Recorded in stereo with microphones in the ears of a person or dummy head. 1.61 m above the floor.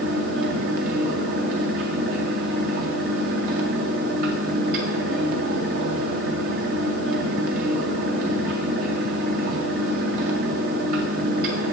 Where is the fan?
50° right (ahead or behind), 0.8 m.